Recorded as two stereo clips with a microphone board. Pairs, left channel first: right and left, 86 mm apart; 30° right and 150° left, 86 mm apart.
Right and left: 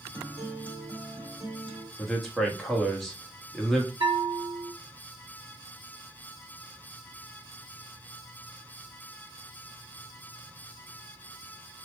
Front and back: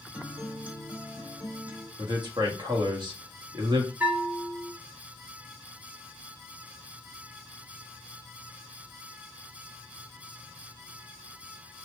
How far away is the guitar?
About 1.1 m.